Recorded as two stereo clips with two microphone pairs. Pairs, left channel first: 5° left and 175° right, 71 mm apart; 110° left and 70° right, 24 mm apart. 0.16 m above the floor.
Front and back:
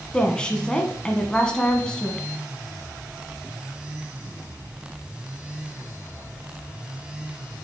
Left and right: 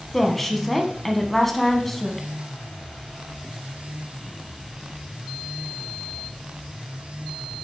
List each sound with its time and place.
0.1 s a woman speaking: 50° left, 1.0 m